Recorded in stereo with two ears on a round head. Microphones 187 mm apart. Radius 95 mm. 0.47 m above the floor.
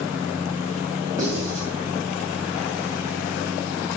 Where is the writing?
20° right (ahead or behind), 2.5 m.